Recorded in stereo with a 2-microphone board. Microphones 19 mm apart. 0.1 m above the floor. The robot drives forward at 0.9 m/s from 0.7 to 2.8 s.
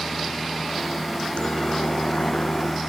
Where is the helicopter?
55° left (ahead or behind); by 2.9 s 65° left (ahead or behind).